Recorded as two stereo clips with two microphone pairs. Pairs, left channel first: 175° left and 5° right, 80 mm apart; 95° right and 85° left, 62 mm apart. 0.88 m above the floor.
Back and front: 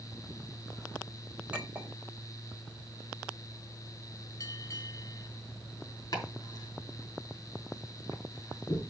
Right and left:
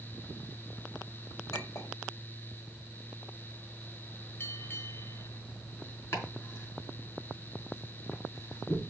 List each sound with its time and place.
1.5 s a clink: 80° right, 3.5 m
4.4 s a bell: 145° right, 1.7 m
6.1 s chopping: 140° right, 4.5 m